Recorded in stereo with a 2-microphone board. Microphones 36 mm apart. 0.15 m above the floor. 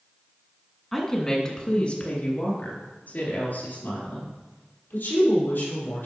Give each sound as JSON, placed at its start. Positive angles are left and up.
{"t": 0.9, "sound": "a woman speaking", "side_deg": 5, "distance_m": 1.7}